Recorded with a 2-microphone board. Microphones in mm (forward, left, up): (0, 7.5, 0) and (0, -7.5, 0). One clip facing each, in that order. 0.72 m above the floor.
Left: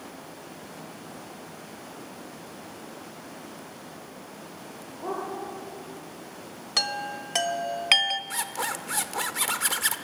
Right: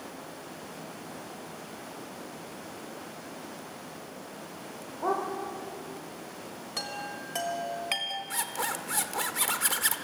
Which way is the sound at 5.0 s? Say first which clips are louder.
Right 3 dB; 75° right (ahead or behind).